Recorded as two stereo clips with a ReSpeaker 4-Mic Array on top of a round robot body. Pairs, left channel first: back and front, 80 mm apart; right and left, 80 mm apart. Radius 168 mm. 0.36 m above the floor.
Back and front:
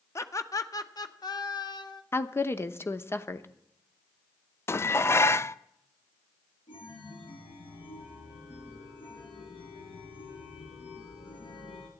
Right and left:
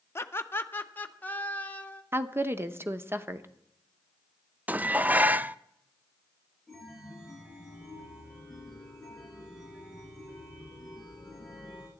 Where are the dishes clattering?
145° left, 0.6 m.